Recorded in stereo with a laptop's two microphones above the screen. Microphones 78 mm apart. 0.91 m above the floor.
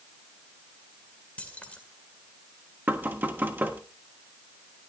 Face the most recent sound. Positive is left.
turn(degrees=-25)  # may be behind; listen again after turning